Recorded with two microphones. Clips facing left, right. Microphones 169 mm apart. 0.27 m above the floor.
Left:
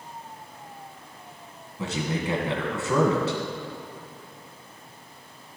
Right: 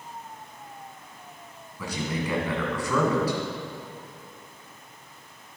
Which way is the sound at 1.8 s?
25° left (ahead or behind).